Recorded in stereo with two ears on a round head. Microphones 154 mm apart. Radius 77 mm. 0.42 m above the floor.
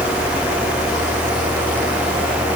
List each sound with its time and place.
Only background noise.